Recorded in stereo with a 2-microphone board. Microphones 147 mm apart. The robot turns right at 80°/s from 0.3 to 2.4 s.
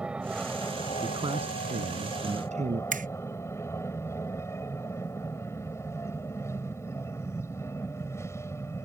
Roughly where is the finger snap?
Right.